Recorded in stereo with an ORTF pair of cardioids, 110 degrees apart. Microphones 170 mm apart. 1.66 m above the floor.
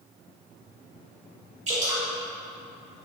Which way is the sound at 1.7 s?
40° right.